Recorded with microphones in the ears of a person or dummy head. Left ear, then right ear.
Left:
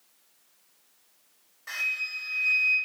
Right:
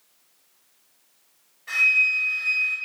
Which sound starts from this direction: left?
A flute, at 1.7 s.